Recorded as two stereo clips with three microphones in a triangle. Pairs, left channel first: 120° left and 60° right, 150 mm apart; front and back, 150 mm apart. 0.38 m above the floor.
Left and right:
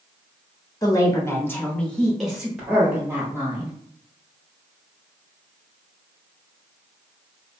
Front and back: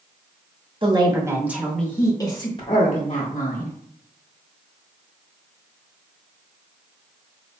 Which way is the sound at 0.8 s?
170° left.